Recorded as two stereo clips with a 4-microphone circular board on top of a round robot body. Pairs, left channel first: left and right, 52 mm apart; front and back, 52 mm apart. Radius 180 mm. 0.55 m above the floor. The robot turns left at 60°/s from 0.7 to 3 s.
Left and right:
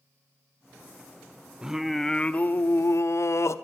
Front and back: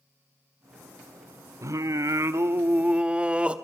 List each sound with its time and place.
1.6 s singing: 165° right, 1.0 m; by 3.5 s 110° left, 1.0 m